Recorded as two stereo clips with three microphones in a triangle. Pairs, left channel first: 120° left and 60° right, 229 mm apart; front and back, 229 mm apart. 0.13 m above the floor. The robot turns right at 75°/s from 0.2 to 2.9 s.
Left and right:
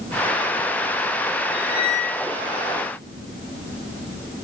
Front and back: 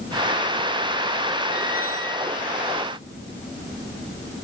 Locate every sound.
1.5 s a squeak: 145° left, 3 m; by 2.3 s 160° right, 3 m